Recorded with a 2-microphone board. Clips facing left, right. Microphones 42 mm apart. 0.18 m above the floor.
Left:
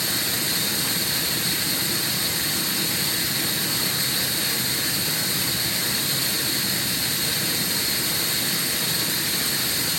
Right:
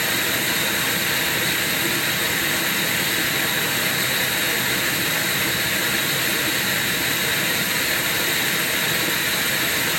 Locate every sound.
0.0 s running water: 50° right (ahead or behind), 1.3 m